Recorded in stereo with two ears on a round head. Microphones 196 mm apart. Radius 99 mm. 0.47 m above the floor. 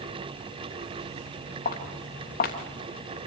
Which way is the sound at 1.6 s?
35° left (ahead or behind).